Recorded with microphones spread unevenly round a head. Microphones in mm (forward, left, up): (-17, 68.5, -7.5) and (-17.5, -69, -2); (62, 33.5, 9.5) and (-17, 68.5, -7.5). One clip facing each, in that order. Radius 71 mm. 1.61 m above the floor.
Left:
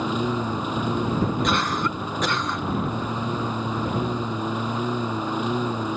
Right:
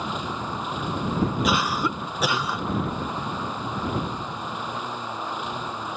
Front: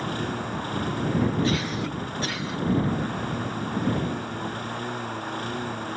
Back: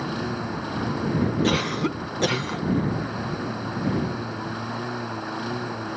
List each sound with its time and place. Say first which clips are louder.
0.0 s a lawn mower: left 6 dB, back 1 dB; 70° left
1.4 s a cough: even, back 3 dB; 170° right